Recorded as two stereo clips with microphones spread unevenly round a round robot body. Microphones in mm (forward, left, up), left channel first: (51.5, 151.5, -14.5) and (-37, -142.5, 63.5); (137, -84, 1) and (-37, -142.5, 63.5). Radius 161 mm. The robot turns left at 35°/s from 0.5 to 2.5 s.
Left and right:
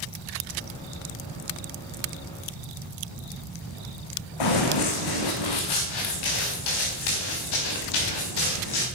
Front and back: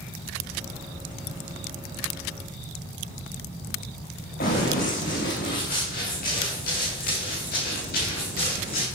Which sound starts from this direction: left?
Running footsteps, at 4.4 s.